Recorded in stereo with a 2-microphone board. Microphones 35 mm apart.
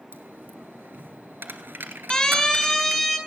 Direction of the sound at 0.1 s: 70° right (ahead or behind).